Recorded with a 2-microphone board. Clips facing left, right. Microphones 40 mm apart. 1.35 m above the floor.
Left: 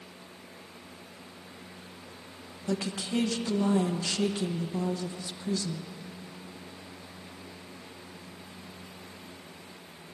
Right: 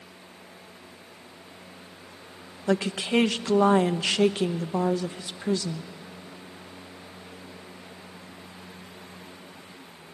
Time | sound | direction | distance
2.7 | a woman speaking | 75° right (ahead or behind) | 0.8 m